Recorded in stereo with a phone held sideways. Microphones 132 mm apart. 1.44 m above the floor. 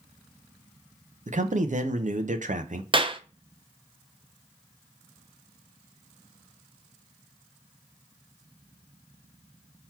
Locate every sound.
1.3 s a man speaking: 60° right (ahead or behind), 0.6 m
2.9 s a clap: 35° right (ahead or behind), 0.5 m